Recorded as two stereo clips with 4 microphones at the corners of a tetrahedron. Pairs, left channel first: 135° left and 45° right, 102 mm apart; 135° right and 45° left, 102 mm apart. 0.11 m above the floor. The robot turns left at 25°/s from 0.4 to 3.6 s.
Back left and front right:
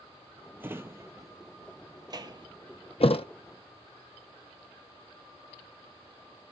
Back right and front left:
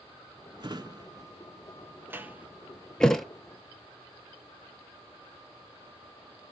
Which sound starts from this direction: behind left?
A thud, at 3.0 s.